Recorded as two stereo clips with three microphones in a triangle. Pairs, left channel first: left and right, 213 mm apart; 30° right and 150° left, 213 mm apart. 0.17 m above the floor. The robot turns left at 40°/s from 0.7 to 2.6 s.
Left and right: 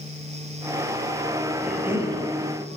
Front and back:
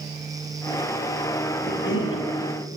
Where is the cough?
Straight ahead, 3 m; by 2.2 s 25° right, 3 m.